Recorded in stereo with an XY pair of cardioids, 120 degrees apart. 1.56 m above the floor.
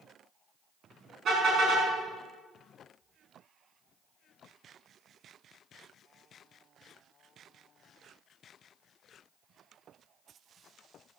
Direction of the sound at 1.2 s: 55° right.